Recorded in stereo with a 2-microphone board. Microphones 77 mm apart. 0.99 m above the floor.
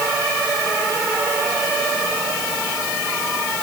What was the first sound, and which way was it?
Only background noise.